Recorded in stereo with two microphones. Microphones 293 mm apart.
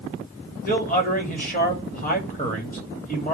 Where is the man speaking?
30° left (ahead or behind), 3 m.